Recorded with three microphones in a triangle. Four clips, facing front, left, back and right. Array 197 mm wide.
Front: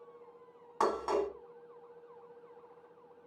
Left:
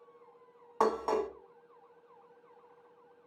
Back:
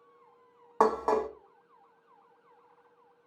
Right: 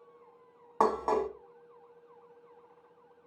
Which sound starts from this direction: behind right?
Dishes clattering, at 0.8 s.